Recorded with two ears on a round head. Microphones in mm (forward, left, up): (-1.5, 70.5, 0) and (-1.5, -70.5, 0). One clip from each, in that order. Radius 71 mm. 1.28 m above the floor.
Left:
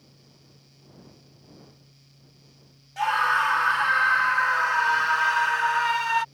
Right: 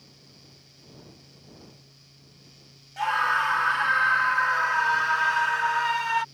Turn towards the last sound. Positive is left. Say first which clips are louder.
# left 2 dB
turn(degrees=20)  # may be behind; listen again after turning